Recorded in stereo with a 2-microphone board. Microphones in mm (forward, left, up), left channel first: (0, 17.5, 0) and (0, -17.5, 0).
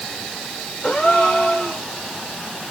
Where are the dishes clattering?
I don't hear dishes clattering.